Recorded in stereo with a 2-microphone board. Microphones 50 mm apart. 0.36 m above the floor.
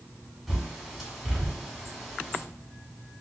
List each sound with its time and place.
0.5 s a bird: 5° right (ahead or behind), 2 m